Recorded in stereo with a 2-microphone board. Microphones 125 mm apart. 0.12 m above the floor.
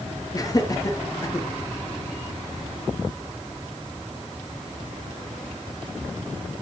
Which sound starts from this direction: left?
Laughter, at 0.3 s.